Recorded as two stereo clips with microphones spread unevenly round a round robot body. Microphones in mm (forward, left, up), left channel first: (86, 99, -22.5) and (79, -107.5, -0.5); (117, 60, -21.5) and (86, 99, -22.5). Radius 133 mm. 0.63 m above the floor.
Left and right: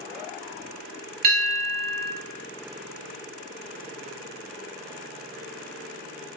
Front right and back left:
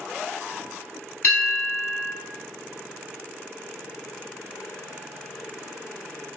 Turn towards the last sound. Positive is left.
turn(degrees=-60)